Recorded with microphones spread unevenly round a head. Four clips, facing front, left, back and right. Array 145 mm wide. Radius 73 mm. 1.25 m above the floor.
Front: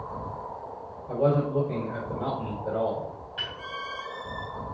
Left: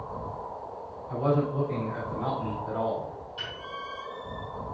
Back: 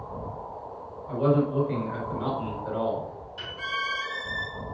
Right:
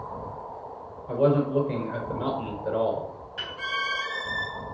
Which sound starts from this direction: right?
A man speaking, at 1.1 s.